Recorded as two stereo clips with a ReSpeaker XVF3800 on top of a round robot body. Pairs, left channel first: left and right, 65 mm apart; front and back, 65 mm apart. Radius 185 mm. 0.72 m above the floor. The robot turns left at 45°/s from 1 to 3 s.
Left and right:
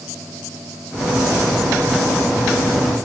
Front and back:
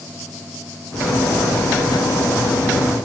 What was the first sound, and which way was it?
Only background noise.